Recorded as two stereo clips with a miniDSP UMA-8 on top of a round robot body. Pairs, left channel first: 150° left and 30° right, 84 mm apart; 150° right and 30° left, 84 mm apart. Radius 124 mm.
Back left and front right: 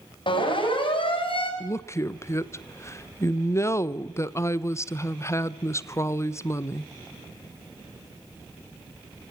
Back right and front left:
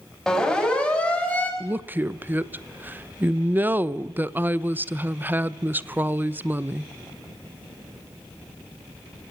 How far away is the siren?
About 7 m.